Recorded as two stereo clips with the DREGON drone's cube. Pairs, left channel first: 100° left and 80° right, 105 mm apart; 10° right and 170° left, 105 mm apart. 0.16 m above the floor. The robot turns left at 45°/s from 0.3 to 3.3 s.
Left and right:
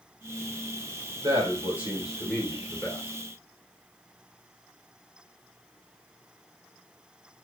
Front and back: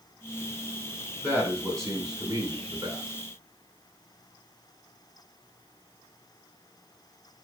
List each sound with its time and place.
1.2 s a man speaking: 120° right, 2.5 m; by 3.0 s 160° left, 2.5 m